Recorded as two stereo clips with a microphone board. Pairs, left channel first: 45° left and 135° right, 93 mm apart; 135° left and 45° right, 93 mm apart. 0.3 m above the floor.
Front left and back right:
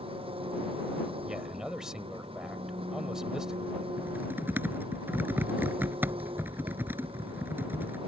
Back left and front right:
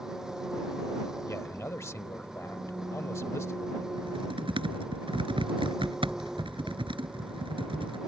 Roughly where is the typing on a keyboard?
Ahead right.